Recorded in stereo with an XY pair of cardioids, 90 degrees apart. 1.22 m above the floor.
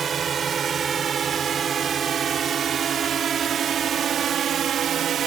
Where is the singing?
I don't hear singing.